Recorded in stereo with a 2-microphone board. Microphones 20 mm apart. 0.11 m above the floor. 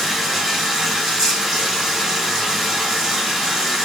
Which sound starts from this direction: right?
Running water, at 0.0 s.